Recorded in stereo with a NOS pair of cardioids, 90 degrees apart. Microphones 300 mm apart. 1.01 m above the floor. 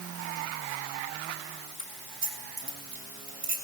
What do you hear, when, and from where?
1.8 s keys jangling: 45° right, 5 m